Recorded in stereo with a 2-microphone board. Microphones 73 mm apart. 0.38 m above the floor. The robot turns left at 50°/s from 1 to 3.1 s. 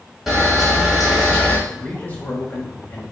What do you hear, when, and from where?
0.3 s a camera shutter: 5° right (ahead or behind), 1.7 m; by 1.6 s 20° left (ahead or behind), 1.7 m
1.7 s a man speaking: 155° left, 1.3 m; by 3.0 s 85° left, 1.3 m